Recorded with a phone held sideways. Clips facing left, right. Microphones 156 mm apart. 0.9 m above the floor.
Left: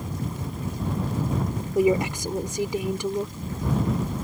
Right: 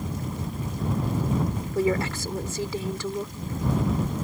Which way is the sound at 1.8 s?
15° left (ahead or behind).